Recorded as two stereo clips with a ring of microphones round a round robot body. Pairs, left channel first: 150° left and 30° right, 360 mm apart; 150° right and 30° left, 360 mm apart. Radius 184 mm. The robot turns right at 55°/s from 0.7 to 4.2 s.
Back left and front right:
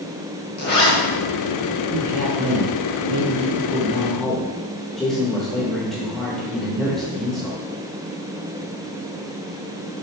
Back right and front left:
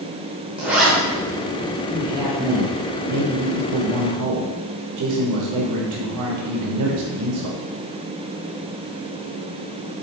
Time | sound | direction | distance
0.6 | a zipper | 115° left | 0.6 m
1.9 | a man speaking | 65° right | 0.6 m